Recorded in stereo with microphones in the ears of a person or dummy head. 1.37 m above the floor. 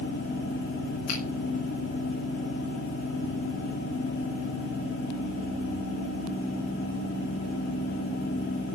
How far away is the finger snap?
About 6.5 m.